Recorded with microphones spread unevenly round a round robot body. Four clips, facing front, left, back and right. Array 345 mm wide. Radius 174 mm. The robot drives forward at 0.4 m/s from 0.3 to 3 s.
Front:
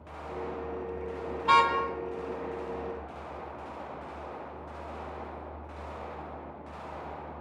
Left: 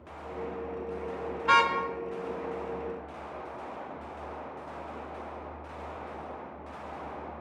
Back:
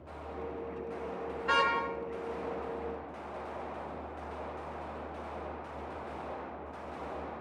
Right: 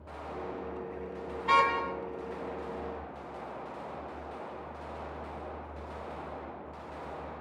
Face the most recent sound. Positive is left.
turn(degrees=40)